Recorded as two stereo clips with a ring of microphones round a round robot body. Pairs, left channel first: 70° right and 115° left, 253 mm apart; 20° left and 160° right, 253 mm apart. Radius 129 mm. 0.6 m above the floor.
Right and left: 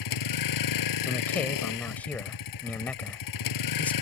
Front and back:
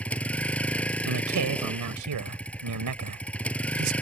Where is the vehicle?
65° right.